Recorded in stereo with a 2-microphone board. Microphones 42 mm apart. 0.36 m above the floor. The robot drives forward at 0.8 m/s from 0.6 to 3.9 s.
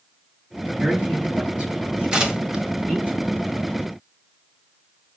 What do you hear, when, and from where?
0.8 s a man speaking: 25° right (ahead or behind), 4.5 m; by 3.1 s 15° right (ahead or behind), 6 m
2.1 s tearing paper: 15° right (ahead or behind), 1.3 m; by 2.6 s 25° right (ahead or behind), 1.0 m